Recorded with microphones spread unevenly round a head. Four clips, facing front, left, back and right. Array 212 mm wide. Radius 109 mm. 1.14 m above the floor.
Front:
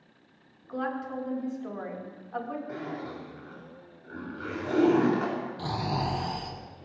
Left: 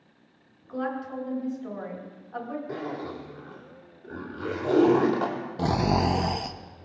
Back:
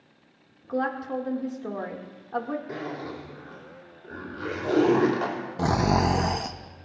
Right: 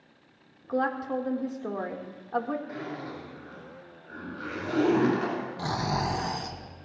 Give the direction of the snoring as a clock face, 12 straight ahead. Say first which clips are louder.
Left 7 dB, back 11 dB; 7 o'clock.